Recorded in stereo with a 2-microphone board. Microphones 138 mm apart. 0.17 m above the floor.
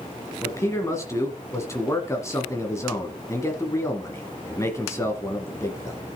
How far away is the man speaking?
About 1.5 m.